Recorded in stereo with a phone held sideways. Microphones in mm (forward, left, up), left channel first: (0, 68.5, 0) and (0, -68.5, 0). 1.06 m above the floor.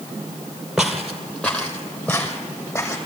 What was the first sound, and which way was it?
Footsteps, 5° right (ahead or behind).